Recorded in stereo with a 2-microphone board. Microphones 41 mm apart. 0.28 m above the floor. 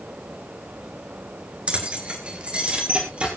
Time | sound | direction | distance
1.7 | keys jangling | 30° right (ahead or behind) | 3 m